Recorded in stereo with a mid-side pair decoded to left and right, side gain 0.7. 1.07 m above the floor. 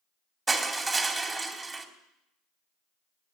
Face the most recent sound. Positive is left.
turn(degrees=-20)